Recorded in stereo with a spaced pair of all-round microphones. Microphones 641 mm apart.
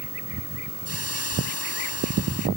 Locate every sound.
0.8 s a hiss: 25° right (ahead or behind)